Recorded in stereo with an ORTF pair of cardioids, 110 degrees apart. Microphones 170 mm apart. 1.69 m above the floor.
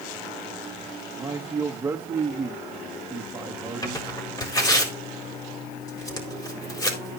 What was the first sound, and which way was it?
A man speaking, 15° right.